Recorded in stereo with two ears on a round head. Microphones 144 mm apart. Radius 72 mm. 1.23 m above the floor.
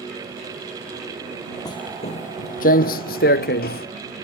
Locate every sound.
1.6 s footsteps: 25° left (ahead or behind); by 3.9 s 65° left (ahead or behind)